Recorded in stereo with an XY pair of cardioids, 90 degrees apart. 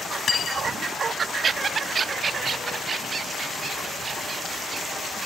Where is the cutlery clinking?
50° left.